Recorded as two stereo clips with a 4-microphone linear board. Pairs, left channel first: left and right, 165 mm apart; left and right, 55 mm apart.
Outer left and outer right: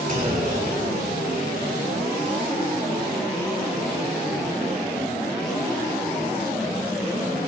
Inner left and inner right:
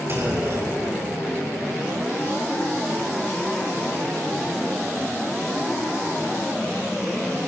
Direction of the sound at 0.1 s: 55° right (ahead or behind).